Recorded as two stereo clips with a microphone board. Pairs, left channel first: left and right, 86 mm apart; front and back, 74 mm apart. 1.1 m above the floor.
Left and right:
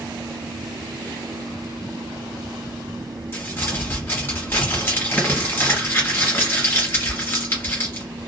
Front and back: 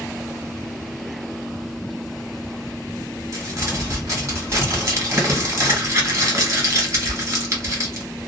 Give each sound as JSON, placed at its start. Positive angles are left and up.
{"t": 3.3, "sound": "crumpling", "azimuth_deg": 145, "distance_m": 1.3}